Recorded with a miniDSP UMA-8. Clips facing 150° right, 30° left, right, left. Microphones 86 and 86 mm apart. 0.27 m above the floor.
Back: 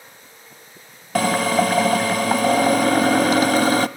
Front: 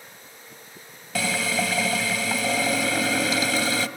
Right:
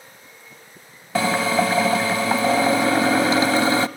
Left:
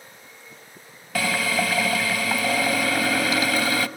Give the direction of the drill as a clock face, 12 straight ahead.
5 o'clock.